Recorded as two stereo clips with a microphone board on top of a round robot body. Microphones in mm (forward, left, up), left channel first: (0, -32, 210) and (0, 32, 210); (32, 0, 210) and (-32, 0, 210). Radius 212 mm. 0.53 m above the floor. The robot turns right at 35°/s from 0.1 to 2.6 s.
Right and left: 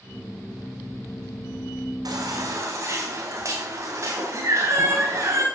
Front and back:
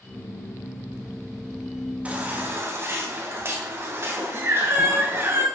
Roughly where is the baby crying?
Left.